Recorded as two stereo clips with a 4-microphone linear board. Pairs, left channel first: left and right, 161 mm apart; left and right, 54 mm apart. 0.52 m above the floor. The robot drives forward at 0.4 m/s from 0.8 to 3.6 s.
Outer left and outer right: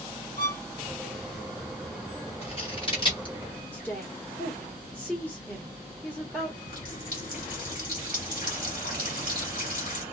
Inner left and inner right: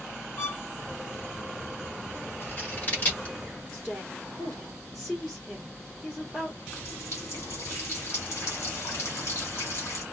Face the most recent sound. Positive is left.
turn(degrees=55)  # may be behind; listen again after turning